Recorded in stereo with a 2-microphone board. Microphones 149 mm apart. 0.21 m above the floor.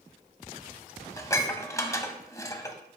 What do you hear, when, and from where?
1.2 s dishes clattering: 20° left (ahead or behind), 0.7 m